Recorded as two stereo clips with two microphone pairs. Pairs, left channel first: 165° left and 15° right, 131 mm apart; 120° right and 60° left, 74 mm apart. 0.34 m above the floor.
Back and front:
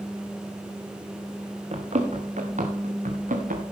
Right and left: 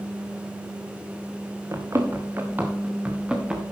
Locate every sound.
1.7 s running footsteps: 20° left, 2.5 m; by 3.6 s 15° right, 3 m